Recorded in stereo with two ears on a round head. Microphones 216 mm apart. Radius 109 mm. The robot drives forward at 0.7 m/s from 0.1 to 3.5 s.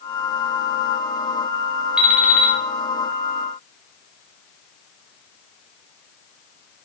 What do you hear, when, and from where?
2.0 s an alarm clock: 5° right (ahead or behind), 1.9 m